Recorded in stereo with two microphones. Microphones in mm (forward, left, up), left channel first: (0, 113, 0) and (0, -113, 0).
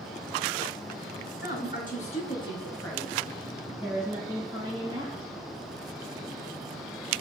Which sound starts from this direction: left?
A woman speaking, at 1.4 s.